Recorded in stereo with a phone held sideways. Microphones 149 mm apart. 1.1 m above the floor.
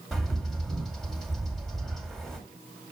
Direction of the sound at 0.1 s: Centre (ahead or behind).